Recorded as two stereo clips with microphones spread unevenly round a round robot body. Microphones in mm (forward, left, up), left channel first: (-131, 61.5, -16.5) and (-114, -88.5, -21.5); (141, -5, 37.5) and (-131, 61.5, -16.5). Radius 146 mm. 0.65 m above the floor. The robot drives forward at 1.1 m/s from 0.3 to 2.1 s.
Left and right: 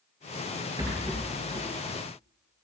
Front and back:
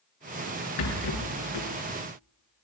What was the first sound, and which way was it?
A rattle, 5° right.